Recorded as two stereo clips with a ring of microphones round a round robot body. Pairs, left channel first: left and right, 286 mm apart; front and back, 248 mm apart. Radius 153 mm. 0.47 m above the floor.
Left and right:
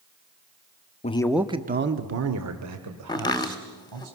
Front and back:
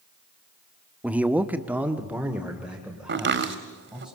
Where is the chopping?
160° left, 1.8 m.